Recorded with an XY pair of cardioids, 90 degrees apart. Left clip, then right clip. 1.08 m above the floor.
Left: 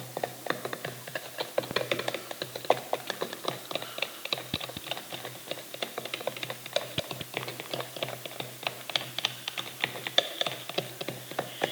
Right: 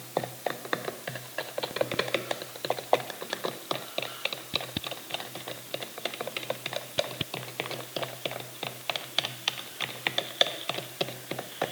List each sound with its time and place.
Only background noise.